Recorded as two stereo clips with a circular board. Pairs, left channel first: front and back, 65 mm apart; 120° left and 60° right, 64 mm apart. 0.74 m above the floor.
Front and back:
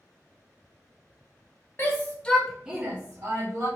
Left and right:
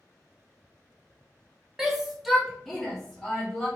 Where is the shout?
15° left, 0.9 m; by 3.7 s 160° right, 1.3 m.